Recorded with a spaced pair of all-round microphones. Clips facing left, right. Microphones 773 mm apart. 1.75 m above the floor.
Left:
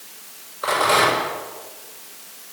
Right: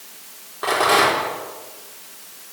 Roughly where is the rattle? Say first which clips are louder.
Right 1 dB; right.